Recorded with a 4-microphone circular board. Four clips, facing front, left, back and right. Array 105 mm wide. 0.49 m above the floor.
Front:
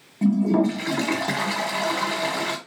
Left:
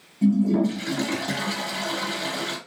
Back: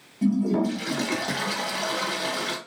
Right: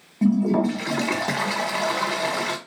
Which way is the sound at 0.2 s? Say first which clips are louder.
Right 1 dB, front 3 dB; 65° right.